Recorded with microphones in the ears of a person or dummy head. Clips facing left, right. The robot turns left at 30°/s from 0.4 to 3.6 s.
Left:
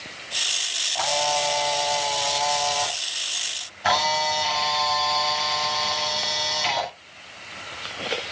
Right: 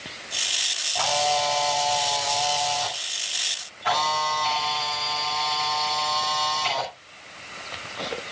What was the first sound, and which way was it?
A camera shutter, straight behind.